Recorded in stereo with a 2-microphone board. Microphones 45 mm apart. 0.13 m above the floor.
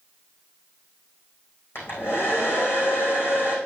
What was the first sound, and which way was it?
A hair dryer, 60° left (ahead or behind).